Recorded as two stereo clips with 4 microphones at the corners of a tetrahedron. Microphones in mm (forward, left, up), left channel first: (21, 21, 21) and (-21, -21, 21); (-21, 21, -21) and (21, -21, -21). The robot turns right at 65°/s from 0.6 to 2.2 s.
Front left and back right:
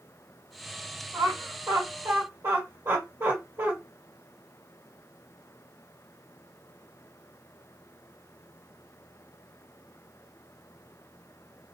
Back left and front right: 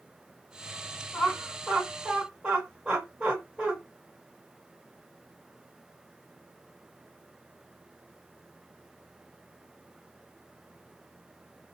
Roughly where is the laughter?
Behind.